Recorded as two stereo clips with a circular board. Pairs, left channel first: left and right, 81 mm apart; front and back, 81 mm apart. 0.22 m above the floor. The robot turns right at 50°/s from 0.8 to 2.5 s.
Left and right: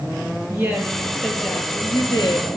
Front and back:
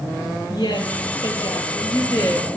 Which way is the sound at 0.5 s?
25° right.